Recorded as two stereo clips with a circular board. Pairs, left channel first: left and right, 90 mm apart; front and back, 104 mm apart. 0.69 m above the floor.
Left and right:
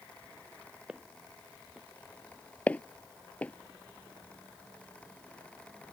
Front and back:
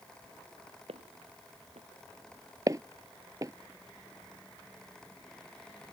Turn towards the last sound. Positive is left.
turn(degrees=150)